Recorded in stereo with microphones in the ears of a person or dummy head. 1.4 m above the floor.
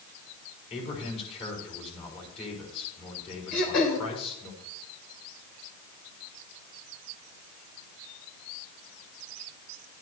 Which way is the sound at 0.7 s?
35° left (ahead or behind).